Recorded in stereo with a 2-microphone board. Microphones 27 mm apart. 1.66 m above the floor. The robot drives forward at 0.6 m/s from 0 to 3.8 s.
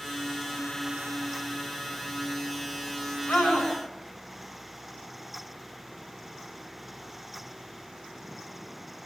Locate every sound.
3.3 s a scream: 75° left (ahead or behind), 10 m; by 3.7 s 70° left (ahead or behind), 10 m